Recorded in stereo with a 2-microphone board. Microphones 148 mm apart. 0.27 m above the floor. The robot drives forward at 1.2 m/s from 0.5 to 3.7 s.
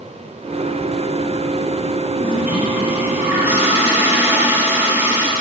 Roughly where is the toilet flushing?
Centre.